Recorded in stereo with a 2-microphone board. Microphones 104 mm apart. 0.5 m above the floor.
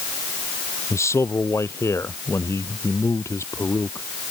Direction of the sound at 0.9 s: 30° left (ahead or behind).